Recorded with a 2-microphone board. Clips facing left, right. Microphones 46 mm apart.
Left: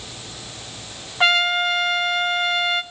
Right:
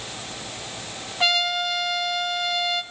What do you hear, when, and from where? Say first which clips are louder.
1.2 s a trumpet: left 5 dB; 30° left (ahead or behind), 0.8 m